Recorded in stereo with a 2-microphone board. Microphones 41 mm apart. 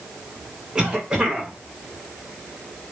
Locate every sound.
0.8 s a cough: 20° right (ahead or behind), 3.5 m